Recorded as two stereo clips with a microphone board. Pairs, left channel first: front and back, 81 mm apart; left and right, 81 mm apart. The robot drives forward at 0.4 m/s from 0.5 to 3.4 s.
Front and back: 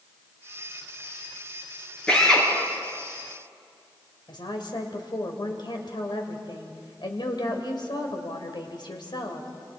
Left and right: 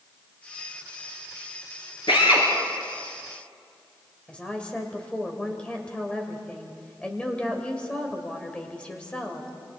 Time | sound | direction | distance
2.1 | a drill | 80° left | 5.5 m
4.3 | a woman speaking | 15° left | 2.5 m